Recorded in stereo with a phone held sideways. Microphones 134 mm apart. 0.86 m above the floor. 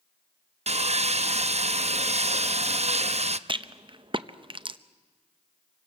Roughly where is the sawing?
Right.